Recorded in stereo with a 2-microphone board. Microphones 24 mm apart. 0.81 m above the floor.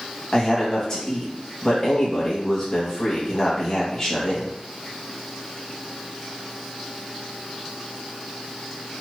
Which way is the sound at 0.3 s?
25° left (ahead or behind).